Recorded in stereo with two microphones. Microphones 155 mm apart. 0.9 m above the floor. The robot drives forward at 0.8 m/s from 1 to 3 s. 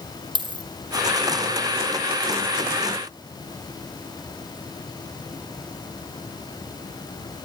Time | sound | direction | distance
0.3 | a dropped coin | 30° right (ahead or behind) | 2 m